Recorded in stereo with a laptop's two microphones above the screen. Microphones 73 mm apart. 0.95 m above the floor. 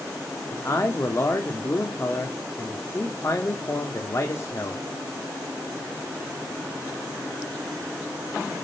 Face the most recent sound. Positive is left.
turn(degrees=40)  # may be behind; listen again after turning